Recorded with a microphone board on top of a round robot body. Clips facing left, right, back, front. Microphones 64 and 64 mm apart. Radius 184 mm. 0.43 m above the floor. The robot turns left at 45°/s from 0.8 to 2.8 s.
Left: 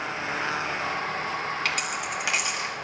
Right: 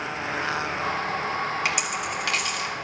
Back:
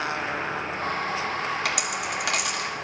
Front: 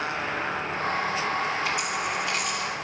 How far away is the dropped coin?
About 1.6 m.